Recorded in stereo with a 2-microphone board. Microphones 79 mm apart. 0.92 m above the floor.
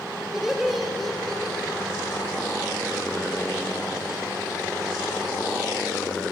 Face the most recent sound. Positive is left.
turn(degrees=10)  # may be behind; listen again after turning